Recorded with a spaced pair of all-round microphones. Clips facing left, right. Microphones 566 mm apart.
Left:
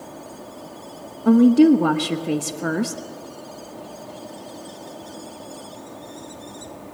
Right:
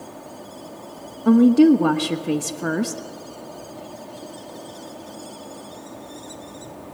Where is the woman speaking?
Centre (ahead or behind), 0.9 m.